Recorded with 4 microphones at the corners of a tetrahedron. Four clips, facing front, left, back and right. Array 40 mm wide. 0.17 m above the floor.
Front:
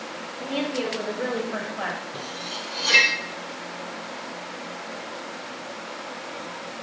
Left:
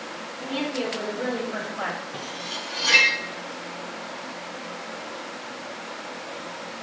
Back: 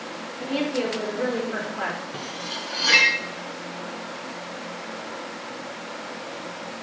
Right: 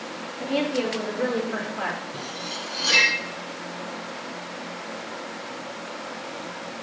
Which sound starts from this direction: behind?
Cutlery clinking, at 2.1 s.